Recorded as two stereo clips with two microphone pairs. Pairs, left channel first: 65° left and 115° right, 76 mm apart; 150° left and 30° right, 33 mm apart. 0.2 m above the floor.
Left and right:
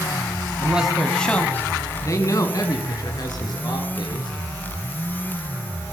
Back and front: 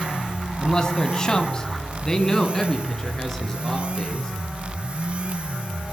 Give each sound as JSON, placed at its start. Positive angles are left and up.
{"t": 0.6, "sound": "a man speaking", "azimuth_deg": -165, "distance_m": 1.1}